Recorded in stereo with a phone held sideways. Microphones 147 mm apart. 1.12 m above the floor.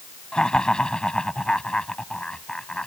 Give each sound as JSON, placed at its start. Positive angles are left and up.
{"t": 0.3, "sound": "laughter", "side_deg": 5}